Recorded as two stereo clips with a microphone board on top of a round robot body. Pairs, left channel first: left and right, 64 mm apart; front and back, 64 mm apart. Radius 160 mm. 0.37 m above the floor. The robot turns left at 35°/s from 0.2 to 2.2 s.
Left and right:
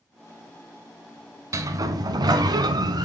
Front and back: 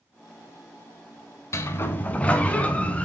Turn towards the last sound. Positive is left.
turn(degrees=-70)